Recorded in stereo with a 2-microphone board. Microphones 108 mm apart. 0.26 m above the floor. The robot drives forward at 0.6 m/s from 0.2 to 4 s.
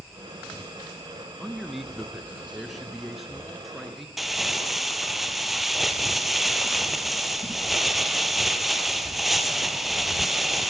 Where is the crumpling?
Centre (ahead or behind), 1.5 m.